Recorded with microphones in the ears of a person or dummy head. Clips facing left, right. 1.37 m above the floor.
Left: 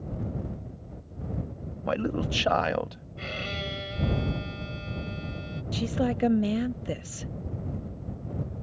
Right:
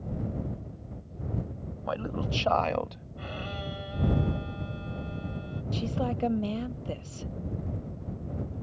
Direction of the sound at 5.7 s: 20° left (ahead or behind).